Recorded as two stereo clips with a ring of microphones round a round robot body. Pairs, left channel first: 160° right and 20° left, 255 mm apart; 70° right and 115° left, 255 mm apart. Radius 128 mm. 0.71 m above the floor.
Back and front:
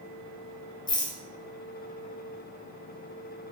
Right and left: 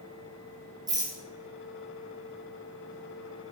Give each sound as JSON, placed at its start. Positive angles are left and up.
{"t": 0.9, "sound": "a rattle", "azimuth_deg": 160, "distance_m": 0.7}